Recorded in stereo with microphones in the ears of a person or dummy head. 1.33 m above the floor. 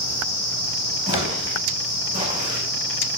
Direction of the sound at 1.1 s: 30° right (ahead or behind).